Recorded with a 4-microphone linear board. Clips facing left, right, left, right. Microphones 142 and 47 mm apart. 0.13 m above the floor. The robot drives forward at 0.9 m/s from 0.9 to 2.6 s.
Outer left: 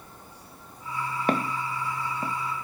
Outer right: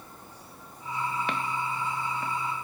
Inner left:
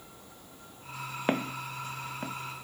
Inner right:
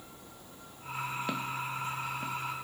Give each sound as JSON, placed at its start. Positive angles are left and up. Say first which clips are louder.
{"t": 1.3, "sound": "footsteps", "louder": "outer left 4 dB, inner left 3 dB", "side_deg": 45}